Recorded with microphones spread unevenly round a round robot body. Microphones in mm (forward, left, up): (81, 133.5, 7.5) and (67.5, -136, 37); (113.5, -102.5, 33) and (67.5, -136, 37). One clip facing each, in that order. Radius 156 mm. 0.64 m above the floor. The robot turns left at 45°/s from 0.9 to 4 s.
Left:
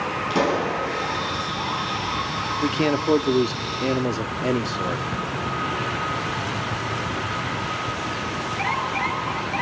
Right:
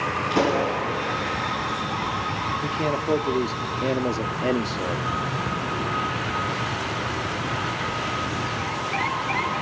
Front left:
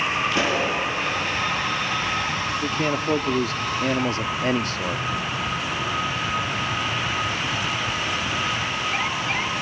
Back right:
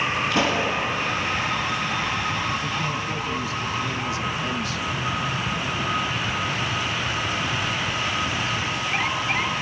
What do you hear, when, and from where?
0.3 s a pop: 150° left, 7 m
2.6 s a man speaking: 70° left, 1.0 m; by 5.0 s 10° left, 1.0 m